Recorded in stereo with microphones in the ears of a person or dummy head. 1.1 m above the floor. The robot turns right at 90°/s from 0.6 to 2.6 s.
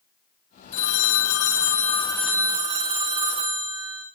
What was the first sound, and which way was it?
A phone ringing, 40° left.